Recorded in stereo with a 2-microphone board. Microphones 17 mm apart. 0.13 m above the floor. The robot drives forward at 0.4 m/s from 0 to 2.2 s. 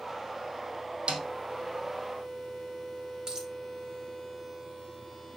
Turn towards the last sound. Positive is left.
turn(degrees=-45)  # may be behind; listen again after turning